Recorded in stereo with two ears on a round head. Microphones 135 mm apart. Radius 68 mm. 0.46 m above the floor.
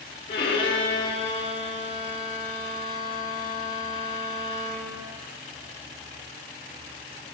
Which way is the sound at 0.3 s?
35° left (ahead or behind).